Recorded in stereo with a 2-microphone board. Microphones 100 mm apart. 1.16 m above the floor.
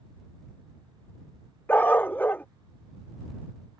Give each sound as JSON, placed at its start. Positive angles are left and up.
{"t": 1.7, "sound": "a dog barking", "side_deg": 15}